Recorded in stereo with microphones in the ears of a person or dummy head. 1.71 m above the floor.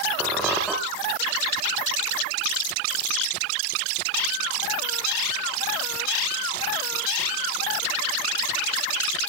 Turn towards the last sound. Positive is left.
turn(degrees=0)  # may be behind; listen again after turning